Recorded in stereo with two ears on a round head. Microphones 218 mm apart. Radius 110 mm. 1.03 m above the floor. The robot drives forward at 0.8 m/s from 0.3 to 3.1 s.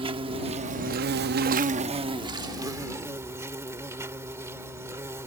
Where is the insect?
20° right (ahead or behind); by 5.3 s 10° right (ahead or behind).